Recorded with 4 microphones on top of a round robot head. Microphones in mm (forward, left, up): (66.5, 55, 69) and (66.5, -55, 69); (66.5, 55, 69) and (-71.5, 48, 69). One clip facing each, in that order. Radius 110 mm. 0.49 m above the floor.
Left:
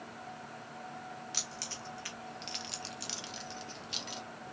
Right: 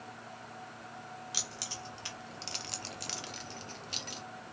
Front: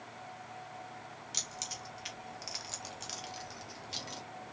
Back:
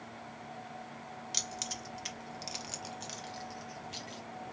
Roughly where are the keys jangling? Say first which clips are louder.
Even, back 4 dB; behind.